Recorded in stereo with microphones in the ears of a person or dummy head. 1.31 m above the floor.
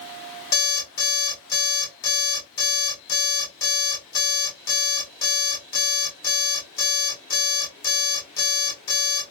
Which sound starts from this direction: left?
An alarm clock, at 0.5 s.